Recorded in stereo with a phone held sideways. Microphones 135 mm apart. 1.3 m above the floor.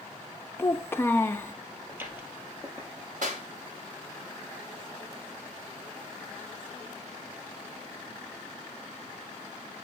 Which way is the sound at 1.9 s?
15° right (ahead or behind).